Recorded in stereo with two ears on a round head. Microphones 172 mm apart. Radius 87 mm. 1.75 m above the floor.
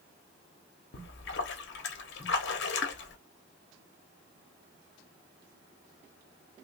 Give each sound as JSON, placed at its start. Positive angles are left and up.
{"t": 0.9, "sound": "a splash", "side_deg": 60, "distance_m": 1.0}